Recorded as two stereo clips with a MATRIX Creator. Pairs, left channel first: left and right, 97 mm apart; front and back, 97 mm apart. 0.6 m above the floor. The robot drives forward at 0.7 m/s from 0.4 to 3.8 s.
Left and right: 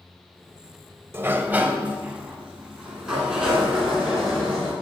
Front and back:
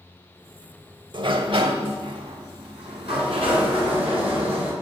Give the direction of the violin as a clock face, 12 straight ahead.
No violin in this recording.